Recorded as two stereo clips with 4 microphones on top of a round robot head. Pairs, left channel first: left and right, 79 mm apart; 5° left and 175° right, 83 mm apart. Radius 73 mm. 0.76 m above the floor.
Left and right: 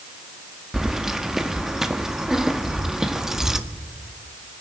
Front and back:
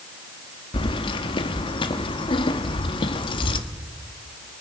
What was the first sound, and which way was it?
Keys jangling, 5° right.